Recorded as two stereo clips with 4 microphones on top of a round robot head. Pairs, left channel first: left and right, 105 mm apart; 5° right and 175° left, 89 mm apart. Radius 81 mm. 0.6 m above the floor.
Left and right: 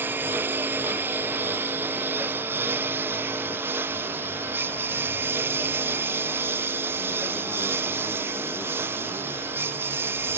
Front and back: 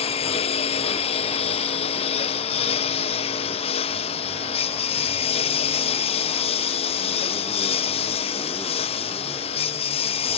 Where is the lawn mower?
15° right.